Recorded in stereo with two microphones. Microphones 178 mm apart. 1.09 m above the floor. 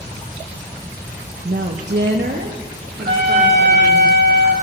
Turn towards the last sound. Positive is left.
turn(degrees=-70)  # may be behind; listen again after turning